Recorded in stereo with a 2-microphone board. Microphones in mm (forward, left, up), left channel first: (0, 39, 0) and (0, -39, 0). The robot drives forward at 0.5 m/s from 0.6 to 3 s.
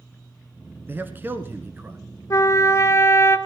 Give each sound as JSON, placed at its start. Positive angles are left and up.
{"t": 0.9, "sound": "a man speaking", "side_deg": -25, "distance_m": 1.2}
{"t": 2.3, "sound": "a trumpet", "side_deg": 45, "distance_m": 0.6}